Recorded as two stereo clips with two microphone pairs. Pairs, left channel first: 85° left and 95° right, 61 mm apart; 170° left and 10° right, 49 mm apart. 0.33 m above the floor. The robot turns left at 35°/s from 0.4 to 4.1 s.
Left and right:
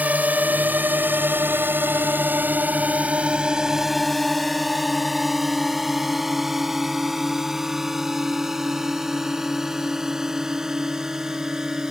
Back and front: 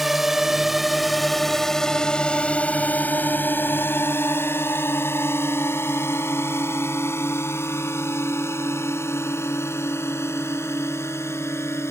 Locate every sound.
0.0 s a drone: 90° right; by 11.9 s 175° right